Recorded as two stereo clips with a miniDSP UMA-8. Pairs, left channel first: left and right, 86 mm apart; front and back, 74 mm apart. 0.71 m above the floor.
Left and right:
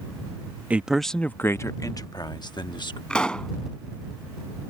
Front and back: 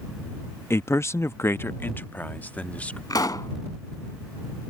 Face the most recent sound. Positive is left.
turn(degrees=10)